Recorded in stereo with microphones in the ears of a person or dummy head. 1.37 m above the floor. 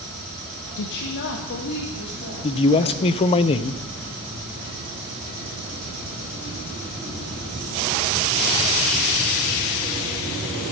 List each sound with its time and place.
0.8 s a woman speaking: 60° left (ahead or behind), 0.8 m; by 3.4 s 55° left (ahead or behind), 4.5 m
2.4 s a man speaking: 25° left (ahead or behind), 0.5 m